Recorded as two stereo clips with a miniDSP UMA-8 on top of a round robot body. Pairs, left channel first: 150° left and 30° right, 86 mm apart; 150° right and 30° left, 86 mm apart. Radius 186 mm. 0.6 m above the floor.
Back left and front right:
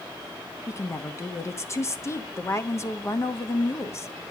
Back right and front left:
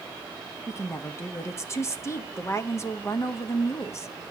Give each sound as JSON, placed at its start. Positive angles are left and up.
{"t": 0.7, "sound": "a woman speaking", "azimuth_deg": 180, "distance_m": 1.3}